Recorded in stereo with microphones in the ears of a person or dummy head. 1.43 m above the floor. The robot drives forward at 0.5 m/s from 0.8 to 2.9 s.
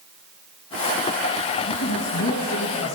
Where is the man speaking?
85° left, 1.8 m; by 3.0 s 65° left (ahead or behind), 1.9 m.